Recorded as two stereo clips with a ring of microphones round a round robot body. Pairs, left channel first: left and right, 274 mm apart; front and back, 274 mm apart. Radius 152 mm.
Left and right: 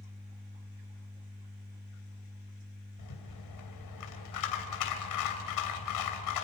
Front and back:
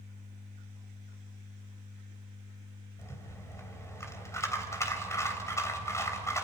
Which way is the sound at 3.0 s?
80° left.